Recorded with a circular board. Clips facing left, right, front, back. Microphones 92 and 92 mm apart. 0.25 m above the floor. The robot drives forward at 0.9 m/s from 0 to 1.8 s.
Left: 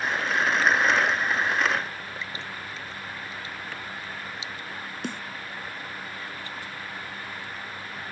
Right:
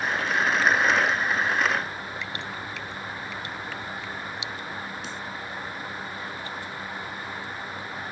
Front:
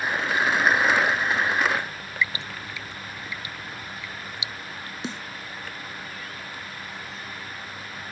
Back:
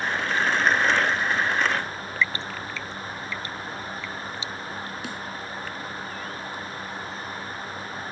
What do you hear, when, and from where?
2.2 s dripping: 75° right
5.0 s a snare drum: 60° left